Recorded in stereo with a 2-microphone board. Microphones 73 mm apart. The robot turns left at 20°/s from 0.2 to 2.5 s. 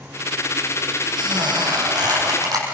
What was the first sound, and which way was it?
A squeak, 80° right.